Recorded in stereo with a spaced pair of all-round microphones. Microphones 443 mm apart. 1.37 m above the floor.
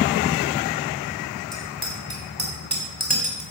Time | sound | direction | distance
1.5 | a bicycle bell | 30° right (ahead or behind) | 6.5 m